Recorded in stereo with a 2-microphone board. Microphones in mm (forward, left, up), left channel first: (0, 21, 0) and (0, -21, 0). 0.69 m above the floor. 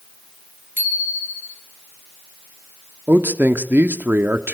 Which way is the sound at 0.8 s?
55° right (ahead or behind).